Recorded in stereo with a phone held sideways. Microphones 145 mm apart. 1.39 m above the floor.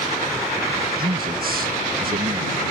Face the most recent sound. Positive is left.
turn(degrees=-75)  # may be behind; listen again after turning